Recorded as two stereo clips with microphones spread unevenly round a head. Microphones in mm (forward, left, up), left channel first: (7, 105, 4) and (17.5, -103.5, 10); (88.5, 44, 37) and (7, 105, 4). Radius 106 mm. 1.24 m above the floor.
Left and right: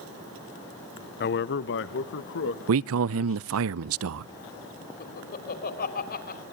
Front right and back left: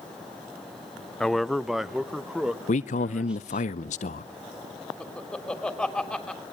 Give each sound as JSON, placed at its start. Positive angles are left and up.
{"t": 1.2, "sound": "a man speaking", "azimuth_deg": 55, "distance_m": 0.8}
{"t": 2.7, "sound": "a man speaking", "azimuth_deg": -65, "distance_m": 0.5}
{"t": 5.0, "sound": "laughter", "azimuth_deg": 45, "distance_m": 3.5}